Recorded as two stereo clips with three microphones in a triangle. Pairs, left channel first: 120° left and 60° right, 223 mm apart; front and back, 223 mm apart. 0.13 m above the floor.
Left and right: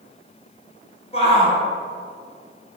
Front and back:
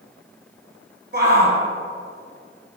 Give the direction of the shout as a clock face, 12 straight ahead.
6 o'clock.